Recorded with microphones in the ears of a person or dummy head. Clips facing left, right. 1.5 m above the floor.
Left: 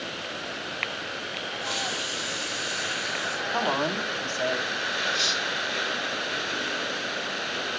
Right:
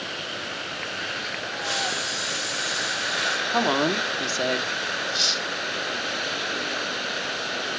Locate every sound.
1.6 s a hiss: 5° right (ahead or behind), 2.0 m
3.5 s a woman speaking: 55° right (ahead or behind), 0.9 m
5.1 s cutlery clinking: 25° left (ahead or behind), 2 m